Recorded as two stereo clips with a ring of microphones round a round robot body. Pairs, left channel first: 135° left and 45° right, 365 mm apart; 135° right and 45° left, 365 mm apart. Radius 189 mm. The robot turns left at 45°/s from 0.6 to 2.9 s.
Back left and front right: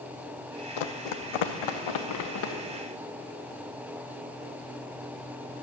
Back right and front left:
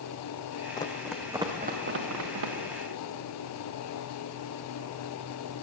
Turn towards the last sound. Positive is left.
turn(degrees=60)